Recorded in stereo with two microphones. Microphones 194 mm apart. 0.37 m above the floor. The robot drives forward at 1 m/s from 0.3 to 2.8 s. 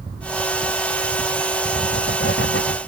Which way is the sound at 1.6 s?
90° left.